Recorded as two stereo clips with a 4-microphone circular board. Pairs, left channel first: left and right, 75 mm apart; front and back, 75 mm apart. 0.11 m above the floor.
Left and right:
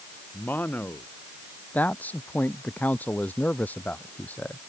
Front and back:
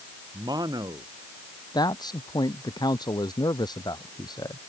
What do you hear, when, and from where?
0.3 s a man speaking: 155° left
1.7 s a man speaking: 20° left